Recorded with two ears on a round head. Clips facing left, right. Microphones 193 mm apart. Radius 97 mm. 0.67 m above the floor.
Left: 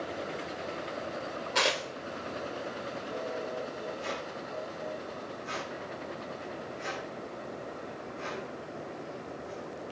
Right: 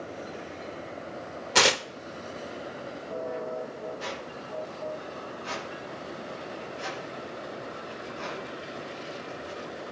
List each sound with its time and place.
1.6 s tearing paper: 55° right (ahead or behind), 0.6 m
4.0 s a squeak: 80° right, 8.5 m